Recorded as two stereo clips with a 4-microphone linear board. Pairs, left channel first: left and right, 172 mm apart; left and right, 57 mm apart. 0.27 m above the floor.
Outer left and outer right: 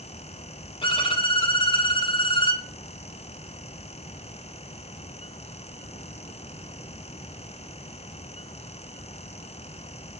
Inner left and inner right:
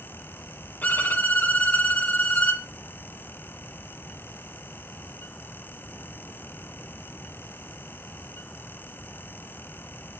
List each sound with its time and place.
0.8 s a violin: 30° left (ahead or behind), 0.5 m